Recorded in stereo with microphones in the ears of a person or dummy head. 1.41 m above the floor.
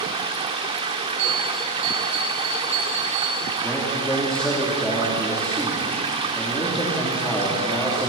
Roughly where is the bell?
Right.